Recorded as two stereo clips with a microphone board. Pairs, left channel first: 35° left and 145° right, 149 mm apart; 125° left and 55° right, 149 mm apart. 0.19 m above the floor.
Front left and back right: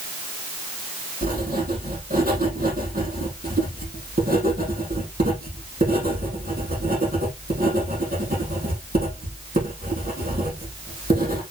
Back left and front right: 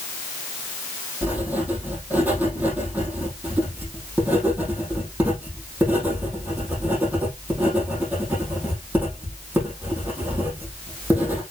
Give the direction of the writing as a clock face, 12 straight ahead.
4 o'clock.